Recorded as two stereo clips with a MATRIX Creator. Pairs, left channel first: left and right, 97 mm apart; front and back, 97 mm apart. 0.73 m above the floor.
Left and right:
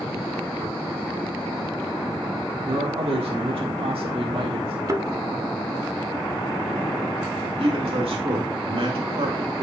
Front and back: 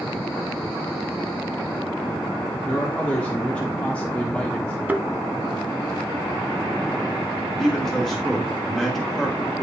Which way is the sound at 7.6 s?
85° right.